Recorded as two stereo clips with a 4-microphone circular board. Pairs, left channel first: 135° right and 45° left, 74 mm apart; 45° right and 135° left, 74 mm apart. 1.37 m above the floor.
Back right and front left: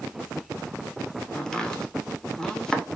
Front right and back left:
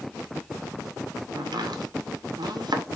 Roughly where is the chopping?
Behind left.